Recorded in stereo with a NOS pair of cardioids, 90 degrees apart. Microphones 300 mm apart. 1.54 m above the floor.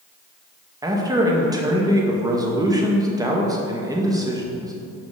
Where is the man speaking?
10° right, 1.7 m.